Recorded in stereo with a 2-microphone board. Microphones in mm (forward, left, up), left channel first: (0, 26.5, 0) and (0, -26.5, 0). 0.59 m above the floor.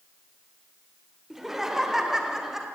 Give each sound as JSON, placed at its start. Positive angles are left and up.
{"t": 1.3, "sound": "laughter", "side_deg": -5, "distance_m": 2.0}